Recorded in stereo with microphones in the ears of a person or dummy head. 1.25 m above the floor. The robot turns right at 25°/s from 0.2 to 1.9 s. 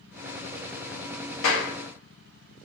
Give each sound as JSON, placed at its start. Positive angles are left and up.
{"t": 1.4, "sound": "a clap", "side_deg": 60, "distance_m": 0.8}